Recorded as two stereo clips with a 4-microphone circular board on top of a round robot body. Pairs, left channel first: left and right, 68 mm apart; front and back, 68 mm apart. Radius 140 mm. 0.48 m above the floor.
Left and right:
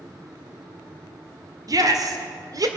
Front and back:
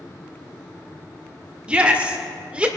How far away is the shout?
About 2 m.